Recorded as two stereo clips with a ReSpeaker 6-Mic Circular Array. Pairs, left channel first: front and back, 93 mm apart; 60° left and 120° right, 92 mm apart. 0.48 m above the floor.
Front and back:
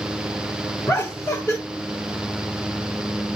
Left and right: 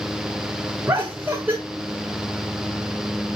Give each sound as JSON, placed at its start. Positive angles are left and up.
{"t": 0.9, "sound": "laughter", "azimuth_deg": -55, "distance_m": 1.5}